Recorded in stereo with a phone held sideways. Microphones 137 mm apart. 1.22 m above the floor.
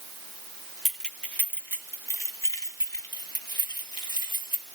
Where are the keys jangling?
Centre (ahead or behind), 1.5 m; by 4.7 s 35° left (ahead or behind), 4 m.